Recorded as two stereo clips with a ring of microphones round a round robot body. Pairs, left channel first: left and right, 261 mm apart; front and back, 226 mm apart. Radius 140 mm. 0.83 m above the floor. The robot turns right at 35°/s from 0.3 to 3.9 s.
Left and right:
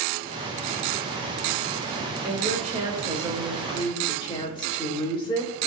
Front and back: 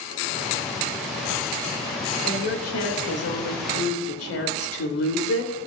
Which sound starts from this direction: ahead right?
A woman speaking, at 2.2 s.